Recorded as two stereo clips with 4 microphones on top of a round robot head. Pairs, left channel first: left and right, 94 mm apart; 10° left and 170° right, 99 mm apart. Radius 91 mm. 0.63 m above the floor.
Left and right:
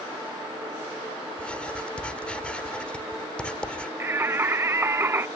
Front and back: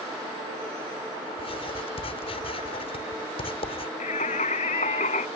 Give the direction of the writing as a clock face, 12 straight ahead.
12 o'clock.